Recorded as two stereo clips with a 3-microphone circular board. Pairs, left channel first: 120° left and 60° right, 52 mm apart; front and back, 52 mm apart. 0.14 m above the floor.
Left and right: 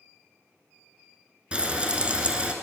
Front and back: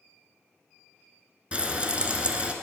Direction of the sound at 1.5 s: 120° right.